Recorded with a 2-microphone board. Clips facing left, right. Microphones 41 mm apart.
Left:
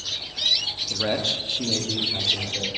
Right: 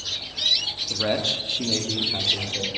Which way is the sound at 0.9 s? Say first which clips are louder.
Right 1 dB; 10° right (ahead or behind).